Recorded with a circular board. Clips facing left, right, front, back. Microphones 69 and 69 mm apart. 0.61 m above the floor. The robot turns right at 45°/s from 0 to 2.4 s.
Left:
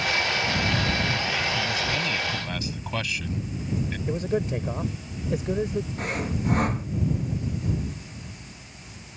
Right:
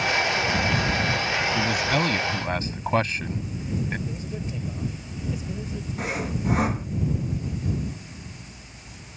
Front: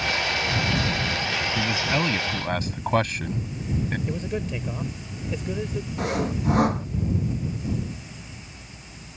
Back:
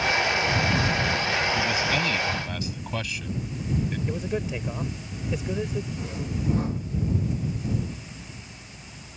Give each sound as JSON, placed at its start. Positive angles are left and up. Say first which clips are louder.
{"t": 1.6, "sound": "a man speaking", "louder": "right 4 dB, even", "azimuth_deg": -75}
{"t": 4.1, "sound": "a man speaking", "louder": "left 8 dB, even", "azimuth_deg": 100}
{"t": 6.0, "sound": "sawing", "louder": "even, front 6 dB", "azimuth_deg": 0}